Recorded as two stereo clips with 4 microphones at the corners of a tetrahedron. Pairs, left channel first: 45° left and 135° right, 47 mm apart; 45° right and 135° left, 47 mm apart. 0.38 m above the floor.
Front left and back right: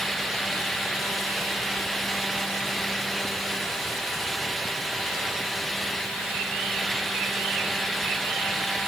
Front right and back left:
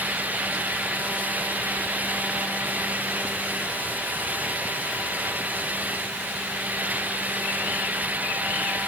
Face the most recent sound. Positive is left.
No sound to turn to.